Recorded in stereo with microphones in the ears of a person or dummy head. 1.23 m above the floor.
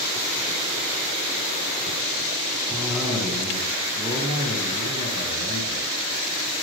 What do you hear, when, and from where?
2.7 s a cough: 10° right (ahead or behind), 6 m